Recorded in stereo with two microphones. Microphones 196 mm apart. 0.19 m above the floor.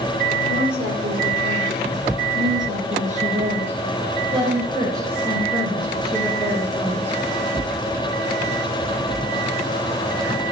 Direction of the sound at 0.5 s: 55° right (ahead or behind).